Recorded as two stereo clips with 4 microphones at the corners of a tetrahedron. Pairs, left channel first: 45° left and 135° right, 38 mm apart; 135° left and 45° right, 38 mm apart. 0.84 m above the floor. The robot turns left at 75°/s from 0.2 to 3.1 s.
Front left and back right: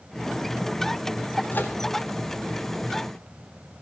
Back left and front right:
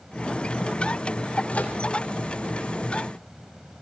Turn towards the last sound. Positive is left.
turn(degrees=-30)